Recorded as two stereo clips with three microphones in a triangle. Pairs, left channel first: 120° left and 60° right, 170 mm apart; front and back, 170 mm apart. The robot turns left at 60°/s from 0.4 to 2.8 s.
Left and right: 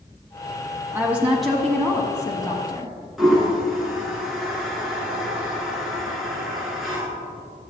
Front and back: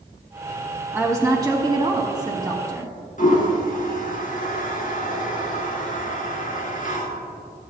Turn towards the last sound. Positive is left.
turn(degrees=30)